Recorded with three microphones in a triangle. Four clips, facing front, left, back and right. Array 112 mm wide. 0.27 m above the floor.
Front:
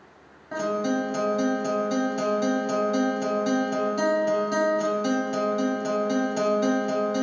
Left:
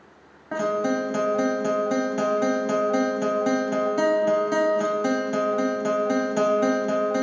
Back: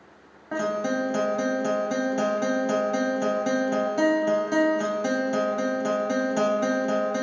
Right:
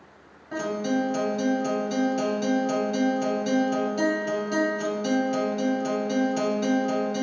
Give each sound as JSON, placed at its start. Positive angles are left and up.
{"t": 0.5, "sound": "a guitar", "azimuth_deg": 115, "distance_m": 0.6}